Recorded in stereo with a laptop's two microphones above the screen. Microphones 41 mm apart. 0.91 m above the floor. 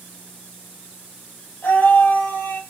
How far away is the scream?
About 5.5 m.